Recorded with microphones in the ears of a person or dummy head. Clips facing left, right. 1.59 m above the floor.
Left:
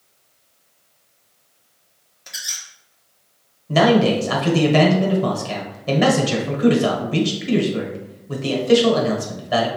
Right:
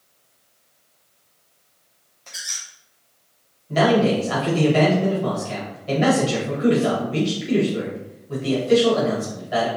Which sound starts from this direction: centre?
A squeak, at 2.3 s.